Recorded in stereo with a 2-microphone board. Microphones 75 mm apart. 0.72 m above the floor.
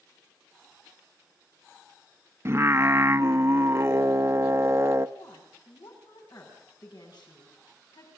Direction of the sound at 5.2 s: 70° left (ahead or behind).